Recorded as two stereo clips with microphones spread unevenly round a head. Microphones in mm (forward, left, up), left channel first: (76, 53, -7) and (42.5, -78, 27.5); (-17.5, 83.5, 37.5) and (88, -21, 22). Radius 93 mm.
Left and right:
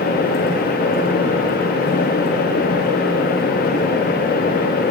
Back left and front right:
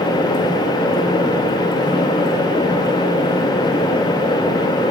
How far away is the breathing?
I don't hear breathing.